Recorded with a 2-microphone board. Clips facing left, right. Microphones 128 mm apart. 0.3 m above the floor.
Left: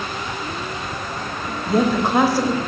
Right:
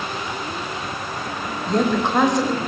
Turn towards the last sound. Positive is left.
turn(degrees=5)  # may be behind; listen again after turning